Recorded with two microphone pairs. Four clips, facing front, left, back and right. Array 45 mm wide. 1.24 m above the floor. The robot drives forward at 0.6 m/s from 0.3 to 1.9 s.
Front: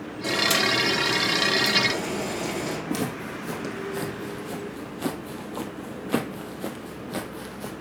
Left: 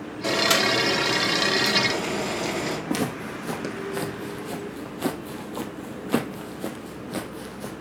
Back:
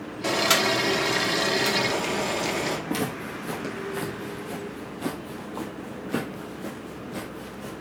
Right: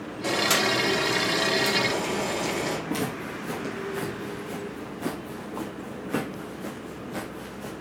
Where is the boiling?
155° left, 2 m; by 2.8 s 165° left, 3 m.